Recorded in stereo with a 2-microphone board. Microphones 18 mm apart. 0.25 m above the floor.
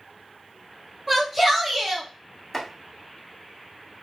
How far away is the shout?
About 1.3 m.